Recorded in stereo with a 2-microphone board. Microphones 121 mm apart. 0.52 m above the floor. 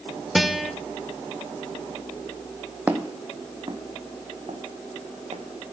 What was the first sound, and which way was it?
A guitar, centre (ahead or behind).